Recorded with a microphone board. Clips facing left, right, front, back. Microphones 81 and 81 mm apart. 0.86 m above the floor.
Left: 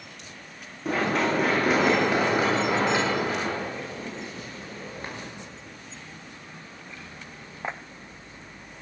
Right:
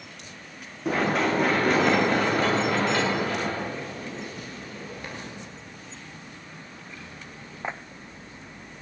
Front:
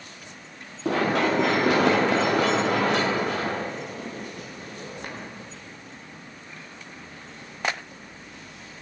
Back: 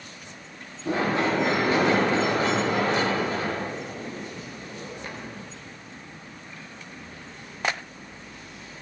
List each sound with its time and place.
0.8 s running footsteps: 5° right, 7 m; by 5.3 s 35° left, 7.5 m